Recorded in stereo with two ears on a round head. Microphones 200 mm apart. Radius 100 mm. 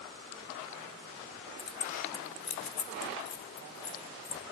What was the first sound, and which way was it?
Keys jangling, 20° left (ahead or behind).